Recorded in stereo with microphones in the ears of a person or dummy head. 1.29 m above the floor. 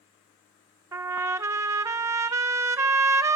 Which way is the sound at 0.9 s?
15° right (ahead or behind).